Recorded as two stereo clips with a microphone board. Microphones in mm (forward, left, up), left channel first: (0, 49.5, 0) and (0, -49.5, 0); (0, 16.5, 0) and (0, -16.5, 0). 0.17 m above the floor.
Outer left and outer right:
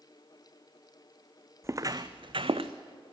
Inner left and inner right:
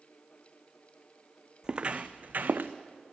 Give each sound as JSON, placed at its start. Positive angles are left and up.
{"t": 1.6, "sound": "footsteps", "side_deg": -30, "distance_m": 0.7}